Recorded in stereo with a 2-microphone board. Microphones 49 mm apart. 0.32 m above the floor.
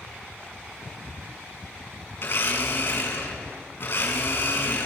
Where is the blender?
50° left (ahead or behind), 3.5 m.